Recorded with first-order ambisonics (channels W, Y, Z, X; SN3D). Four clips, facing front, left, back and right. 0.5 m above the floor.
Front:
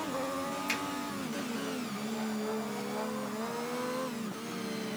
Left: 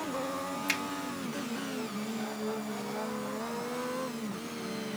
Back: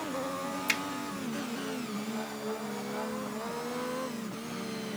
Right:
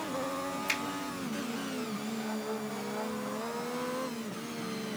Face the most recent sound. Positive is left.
turn(degrees=160)